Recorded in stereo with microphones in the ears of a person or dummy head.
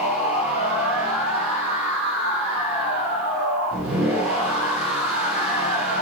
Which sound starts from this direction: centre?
A machine running, at 0.0 s.